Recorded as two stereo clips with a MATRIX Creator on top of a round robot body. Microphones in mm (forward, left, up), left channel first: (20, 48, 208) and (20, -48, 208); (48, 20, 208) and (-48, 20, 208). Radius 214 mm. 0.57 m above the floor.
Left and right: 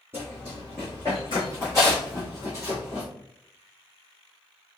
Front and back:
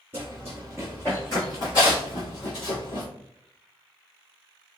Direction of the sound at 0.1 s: 155° right.